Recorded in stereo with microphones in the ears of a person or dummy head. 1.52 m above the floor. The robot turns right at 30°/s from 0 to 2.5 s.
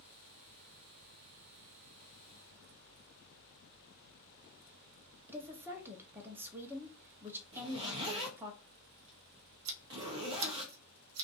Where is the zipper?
20° right (ahead or behind), 0.6 m.